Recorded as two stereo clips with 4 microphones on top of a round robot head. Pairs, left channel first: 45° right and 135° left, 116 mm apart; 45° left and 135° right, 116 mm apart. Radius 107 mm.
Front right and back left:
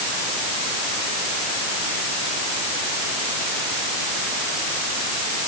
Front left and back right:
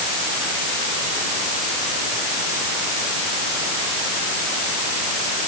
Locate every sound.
Only background noise.